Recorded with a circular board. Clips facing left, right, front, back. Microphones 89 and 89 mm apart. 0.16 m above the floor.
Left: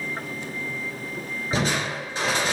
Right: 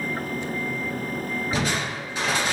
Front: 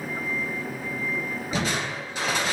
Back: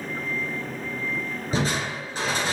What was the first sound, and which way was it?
Crushing, 145° left.